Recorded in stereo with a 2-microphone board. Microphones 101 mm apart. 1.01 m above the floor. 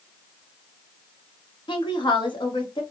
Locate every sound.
1.7 s a woman speaking: 55° left (ahead or behind), 1.1 m